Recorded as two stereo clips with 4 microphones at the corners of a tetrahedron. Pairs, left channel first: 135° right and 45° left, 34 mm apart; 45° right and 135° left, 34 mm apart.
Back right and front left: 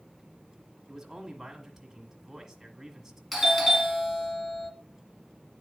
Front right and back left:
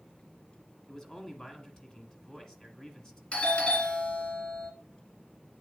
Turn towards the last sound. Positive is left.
turn(degrees=-45)